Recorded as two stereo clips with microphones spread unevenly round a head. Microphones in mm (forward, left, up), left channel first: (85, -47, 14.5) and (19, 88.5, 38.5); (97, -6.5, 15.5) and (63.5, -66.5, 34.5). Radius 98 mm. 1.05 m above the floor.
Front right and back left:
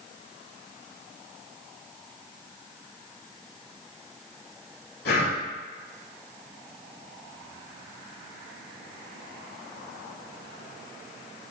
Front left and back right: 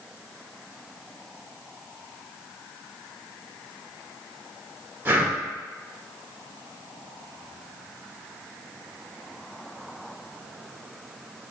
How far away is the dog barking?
I don't hear a dog barking.